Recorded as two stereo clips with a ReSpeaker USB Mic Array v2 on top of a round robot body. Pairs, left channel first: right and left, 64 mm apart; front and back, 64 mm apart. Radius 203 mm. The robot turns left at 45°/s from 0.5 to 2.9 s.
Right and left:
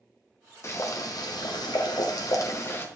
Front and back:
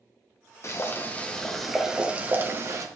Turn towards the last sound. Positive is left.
turn(degrees=-145)